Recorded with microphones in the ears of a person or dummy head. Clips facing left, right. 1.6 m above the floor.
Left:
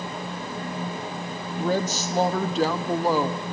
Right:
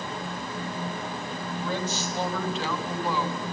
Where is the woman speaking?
35° left (ahead or behind), 1.1 m.